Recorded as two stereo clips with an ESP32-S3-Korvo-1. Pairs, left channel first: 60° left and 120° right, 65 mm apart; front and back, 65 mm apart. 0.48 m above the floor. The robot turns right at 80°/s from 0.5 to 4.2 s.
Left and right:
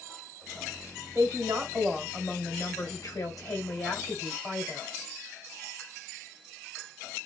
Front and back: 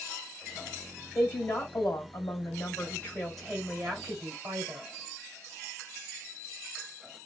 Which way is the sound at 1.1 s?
90° right.